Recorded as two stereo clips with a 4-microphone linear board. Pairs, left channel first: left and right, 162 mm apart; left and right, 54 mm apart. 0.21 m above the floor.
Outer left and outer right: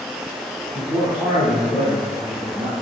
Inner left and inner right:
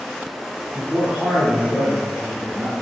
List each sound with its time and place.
0.7 s a man speaking: 5° right (ahead or behind), 1.2 m; by 2.7 s 35° right (ahead or behind), 1.4 m